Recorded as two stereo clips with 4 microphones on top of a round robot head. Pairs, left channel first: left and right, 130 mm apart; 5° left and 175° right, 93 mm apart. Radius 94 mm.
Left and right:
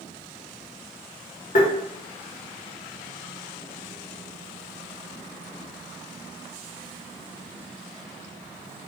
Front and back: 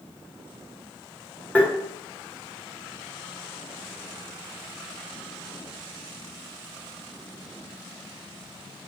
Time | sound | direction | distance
1.6 | tapping | 80° left | 1.0 m